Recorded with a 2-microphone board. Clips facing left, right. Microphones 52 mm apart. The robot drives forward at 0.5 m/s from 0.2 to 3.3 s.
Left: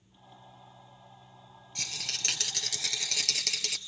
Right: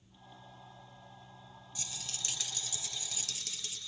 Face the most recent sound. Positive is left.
turn(degrees=70)  # may be behind; listen again after turning